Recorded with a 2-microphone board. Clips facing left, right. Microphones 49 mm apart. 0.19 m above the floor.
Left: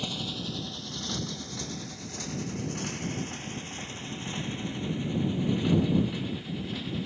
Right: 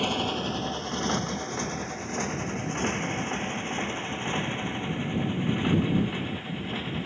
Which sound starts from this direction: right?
A motorcycle, at 0.0 s.